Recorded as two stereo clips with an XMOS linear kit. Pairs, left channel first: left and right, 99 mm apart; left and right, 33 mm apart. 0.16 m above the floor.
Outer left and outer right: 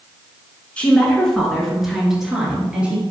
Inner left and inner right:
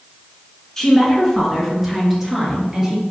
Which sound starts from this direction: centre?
A woman speaking, at 0.8 s.